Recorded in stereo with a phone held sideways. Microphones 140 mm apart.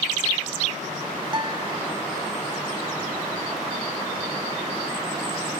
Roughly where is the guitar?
Right.